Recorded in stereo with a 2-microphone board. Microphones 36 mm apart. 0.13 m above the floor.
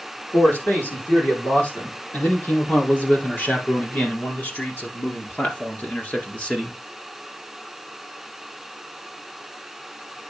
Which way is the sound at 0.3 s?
70° left (ahead or behind).